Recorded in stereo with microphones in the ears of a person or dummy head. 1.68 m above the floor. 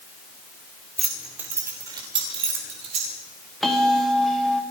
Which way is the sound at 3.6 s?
Centre (ahead or behind).